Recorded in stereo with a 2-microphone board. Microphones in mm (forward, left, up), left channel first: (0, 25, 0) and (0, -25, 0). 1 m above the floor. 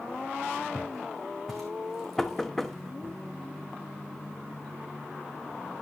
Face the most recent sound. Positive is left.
turn(degrees=5)  # may be behind; listen again after turning